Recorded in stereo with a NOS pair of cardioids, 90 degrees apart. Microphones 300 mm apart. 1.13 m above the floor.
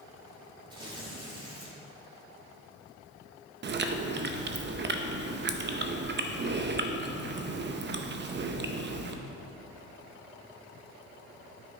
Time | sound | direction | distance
0.7 | tearing paper | 15° right | 2.5 m
3.6 | chewing | 35° right | 0.7 m